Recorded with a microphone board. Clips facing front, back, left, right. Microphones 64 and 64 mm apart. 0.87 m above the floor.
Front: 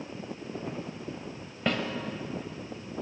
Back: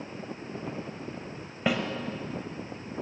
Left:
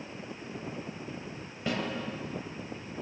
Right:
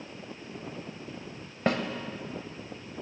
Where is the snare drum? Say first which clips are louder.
Back 2 dB, right 5 dB; 100° right, 0.9 m.